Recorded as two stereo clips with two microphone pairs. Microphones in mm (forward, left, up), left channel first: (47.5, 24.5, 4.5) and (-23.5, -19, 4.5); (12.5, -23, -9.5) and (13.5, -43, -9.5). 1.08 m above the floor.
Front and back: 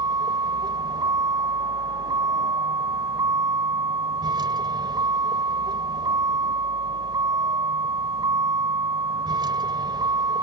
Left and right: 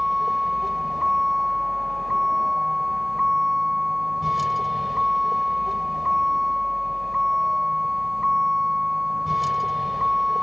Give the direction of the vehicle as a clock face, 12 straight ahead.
6 o'clock.